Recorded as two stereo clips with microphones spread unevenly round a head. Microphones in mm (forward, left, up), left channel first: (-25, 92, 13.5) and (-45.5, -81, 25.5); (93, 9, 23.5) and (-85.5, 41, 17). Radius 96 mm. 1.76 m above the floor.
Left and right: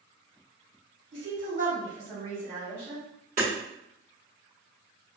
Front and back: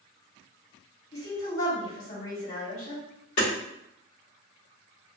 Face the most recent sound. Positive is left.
turn(degrees=-45)